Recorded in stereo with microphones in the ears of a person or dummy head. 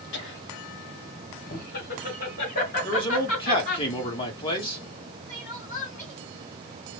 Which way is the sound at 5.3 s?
40° left (ahead or behind).